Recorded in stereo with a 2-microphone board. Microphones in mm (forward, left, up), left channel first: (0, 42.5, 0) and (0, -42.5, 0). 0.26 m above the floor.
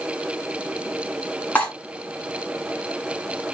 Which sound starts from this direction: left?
Cutlery clinking, at 1.6 s.